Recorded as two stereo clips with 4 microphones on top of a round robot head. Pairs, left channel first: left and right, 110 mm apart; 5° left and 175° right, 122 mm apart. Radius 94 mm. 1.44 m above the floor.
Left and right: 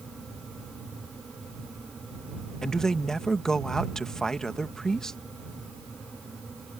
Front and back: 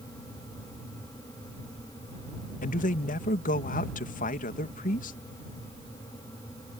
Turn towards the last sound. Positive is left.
turn(degrees=5)